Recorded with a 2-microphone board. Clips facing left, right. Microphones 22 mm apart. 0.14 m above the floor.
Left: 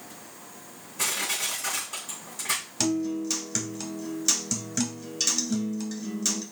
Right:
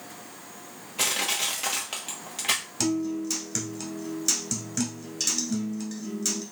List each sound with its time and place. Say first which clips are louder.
1.0 s crushing: right 2 dB; 70° right (ahead or behind), 1.4 m
2.8 s a guitar: left 2 dB; 10° left (ahead or behind), 1.0 m